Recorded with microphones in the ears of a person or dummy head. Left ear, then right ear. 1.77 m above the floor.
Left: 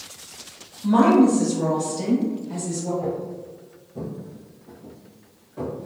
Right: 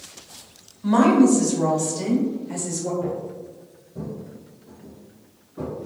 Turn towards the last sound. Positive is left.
turn(degrees=30)  # may be behind; listen again after turning